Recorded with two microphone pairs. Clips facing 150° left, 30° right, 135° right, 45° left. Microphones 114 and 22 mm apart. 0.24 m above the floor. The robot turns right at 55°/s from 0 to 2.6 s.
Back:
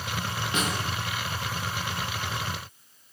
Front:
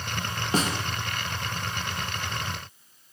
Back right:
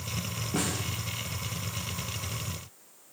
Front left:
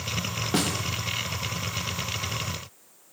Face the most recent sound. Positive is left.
turn(degrees=135)